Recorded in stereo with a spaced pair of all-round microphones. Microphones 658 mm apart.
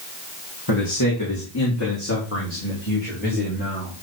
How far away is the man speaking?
About 2 m.